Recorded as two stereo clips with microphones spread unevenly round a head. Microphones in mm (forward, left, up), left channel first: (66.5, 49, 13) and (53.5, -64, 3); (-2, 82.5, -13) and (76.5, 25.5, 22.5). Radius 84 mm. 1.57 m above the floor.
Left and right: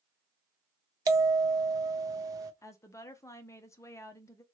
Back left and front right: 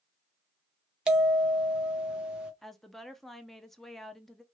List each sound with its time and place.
1.1 s a bell: 60° right, 0.6 m
2.6 s a woman speaking: 35° left, 0.6 m